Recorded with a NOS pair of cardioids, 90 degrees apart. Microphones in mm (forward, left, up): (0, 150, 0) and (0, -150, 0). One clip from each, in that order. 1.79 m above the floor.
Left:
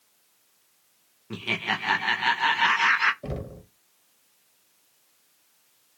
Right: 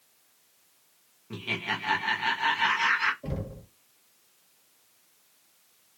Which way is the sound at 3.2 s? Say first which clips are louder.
Left 2 dB; 35° left.